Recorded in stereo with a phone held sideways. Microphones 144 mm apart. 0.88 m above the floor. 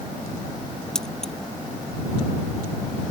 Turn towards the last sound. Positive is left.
turn(degrees=5)  # may be behind; listen again after turning